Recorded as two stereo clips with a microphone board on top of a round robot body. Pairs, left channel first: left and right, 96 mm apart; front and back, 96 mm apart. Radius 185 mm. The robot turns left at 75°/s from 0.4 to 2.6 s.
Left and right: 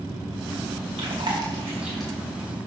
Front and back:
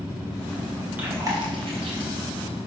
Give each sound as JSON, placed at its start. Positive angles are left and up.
{"t": 1.0, "sound": "chewing", "azimuth_deg": -105, "distance_m": 3.0}